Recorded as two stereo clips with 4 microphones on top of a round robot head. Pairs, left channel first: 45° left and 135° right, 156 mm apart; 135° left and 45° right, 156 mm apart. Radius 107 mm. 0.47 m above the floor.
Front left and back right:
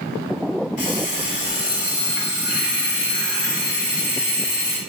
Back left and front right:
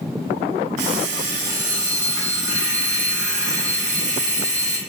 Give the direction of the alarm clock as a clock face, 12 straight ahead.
12 o'clock.